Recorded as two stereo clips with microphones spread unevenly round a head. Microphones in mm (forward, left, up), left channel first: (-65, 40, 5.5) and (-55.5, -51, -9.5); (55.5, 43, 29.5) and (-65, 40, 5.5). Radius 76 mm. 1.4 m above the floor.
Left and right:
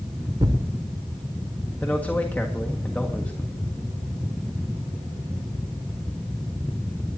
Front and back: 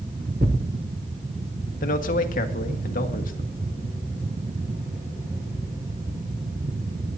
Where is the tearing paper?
135° right, 1.8 m.